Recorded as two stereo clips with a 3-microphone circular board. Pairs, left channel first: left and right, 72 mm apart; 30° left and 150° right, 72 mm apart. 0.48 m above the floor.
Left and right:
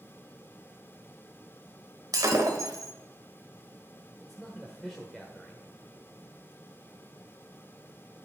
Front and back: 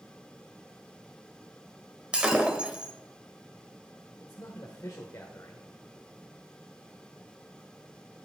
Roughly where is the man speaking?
Ahead.